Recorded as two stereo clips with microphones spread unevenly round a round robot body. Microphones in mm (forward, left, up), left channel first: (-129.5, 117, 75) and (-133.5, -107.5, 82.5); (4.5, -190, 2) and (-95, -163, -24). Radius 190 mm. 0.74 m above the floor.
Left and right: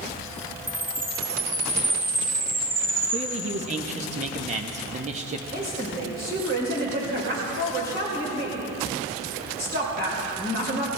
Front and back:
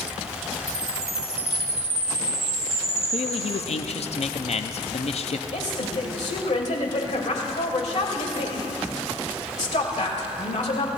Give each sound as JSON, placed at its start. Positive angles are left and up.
{"t": 0.7, "sound": "a chime", "azimuth_deg": -170, "distance_m": 6.0}
{"t": 3.1, "sound": "a man speaking", "azimuth_deg": -35, "distance_m": 0.8}
{"t": 5.5, "sound": "a woman speaking", "azimuth_deg": -30, "distance_m": 3.5}